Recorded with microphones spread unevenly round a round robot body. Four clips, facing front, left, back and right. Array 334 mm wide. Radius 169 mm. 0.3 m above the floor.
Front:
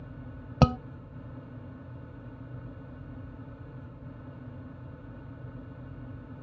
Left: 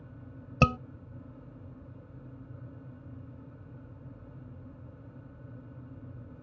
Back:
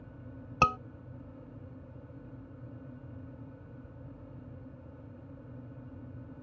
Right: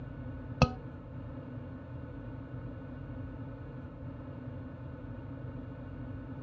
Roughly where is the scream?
Ahead.